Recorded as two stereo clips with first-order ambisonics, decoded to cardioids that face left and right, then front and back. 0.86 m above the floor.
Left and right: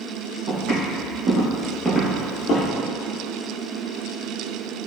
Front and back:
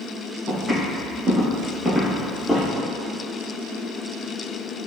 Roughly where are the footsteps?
Right.